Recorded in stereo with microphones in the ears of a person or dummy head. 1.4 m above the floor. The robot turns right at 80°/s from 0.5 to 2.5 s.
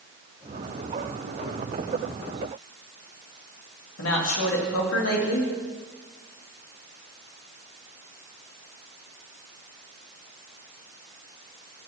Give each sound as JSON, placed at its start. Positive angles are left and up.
{"t": 4.0, "sound": "a man speaking", "side_deg": 85, "distance_m": 2.5}